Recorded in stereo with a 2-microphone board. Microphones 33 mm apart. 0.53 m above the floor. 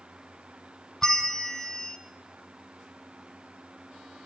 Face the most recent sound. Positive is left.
turn(degrees=10)  # may be behind; listen again after turning